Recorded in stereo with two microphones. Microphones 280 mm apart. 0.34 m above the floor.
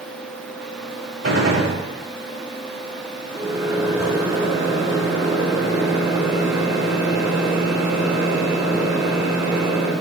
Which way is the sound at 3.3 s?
10° right (ahead or behind).